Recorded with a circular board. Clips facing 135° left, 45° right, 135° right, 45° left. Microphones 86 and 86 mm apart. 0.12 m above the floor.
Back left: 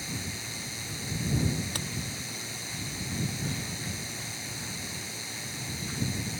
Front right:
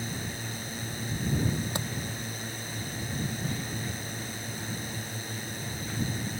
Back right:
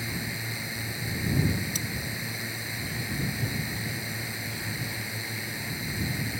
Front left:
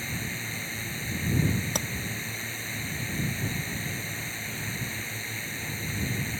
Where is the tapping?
20° left.